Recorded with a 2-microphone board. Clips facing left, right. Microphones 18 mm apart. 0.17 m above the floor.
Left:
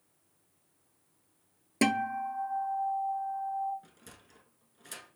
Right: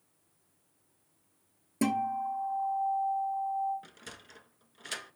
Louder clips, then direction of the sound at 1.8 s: Left 1 dB; 45° left (ahead or behind).